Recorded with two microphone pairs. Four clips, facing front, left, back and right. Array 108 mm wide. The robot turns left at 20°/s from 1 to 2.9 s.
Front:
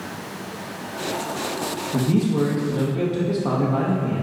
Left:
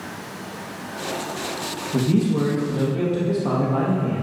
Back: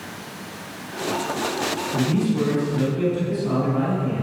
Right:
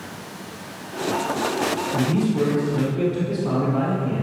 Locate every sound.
1.9 s a man speaking: 50° left, 3.5 m; by 4.2 s 30° left, 3.5 m